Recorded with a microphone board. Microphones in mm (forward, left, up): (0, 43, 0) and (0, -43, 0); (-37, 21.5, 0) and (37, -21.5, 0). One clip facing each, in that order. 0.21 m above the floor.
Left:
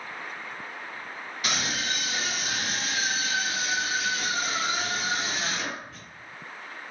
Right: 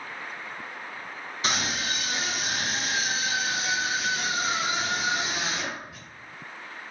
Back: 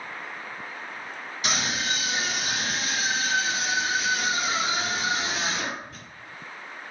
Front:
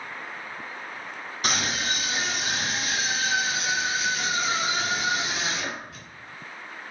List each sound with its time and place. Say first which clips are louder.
1.4 s a scream: right 1 dB, front 1 dB; 40° right, 1.7 m; by 6.0 s 165° right, 1.9 m